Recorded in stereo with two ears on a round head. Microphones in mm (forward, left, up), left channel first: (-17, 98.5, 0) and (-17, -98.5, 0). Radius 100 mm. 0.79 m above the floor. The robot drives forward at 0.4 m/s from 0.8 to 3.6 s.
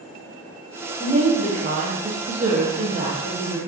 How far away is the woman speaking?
About 0.7 m.